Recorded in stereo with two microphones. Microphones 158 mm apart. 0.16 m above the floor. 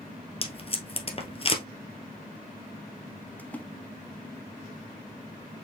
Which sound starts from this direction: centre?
A splash, at 3.4 s.